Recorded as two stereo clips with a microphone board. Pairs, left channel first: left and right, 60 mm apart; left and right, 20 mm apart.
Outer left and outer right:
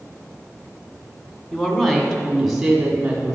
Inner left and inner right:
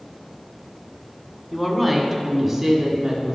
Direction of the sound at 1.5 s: 10° left (ahead or behind).